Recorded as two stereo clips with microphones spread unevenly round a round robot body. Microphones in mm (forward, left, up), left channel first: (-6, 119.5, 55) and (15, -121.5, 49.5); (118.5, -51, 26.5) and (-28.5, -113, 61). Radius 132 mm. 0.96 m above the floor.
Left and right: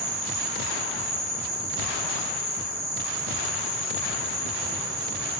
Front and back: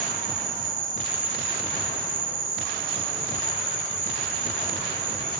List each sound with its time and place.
0.0 s an insect: 150° right, 3.5 m